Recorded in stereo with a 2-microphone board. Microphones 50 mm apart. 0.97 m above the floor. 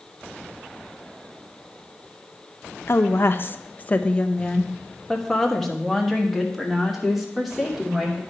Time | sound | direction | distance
2.9 | a woman speaking | 50° left (ahead or behind) | 0.6 m